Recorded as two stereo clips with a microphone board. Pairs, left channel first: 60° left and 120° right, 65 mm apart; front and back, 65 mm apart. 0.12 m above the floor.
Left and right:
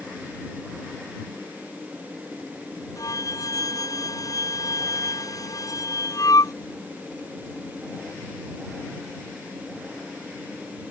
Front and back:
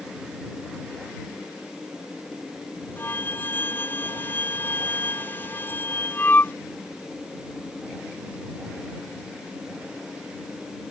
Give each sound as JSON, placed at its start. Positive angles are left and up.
{"t": 3.0, "sound": "a flute", "azimuth_deg": 55}